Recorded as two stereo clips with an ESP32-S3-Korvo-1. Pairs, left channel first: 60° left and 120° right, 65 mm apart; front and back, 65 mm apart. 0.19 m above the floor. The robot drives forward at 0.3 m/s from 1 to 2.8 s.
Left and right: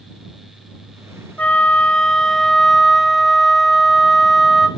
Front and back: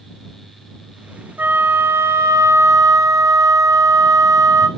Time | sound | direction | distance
1.4 | a flute | 125° left | 0.6 m